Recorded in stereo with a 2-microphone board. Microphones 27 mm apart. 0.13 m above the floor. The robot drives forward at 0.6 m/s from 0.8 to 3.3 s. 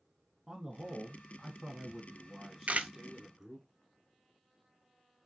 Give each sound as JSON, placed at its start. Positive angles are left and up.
{"t": 0.5, "sound": "a man speaking", "side_deg": -5, "distance_m": 1.1}
{"t": 2.7, "sound": "a camera shutter", "side_deg": -60, "distance_m": 0.5}